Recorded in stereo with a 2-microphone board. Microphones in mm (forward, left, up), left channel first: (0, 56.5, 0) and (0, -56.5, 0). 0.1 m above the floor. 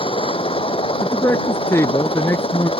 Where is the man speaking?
25° left (ahead or behind).